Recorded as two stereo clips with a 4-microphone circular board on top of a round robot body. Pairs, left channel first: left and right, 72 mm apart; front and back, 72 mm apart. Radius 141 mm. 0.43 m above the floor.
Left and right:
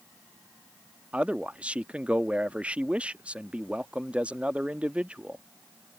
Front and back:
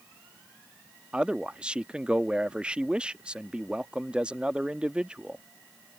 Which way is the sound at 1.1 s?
130° right.